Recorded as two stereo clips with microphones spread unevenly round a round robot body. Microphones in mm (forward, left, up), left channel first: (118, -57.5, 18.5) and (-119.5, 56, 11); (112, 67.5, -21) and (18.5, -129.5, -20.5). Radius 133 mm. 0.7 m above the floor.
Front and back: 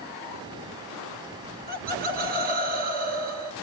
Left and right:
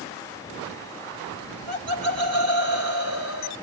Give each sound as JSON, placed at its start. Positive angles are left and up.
{"t": 1.4, "sound": "laughter", "azimuth_deg": -150, "distance_m": 2.0}